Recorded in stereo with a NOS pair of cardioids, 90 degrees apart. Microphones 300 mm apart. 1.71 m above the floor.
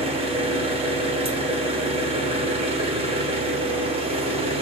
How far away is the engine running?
About 1.0 m.